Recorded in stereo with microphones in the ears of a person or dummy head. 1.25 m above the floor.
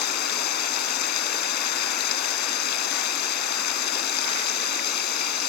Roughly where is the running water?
Left.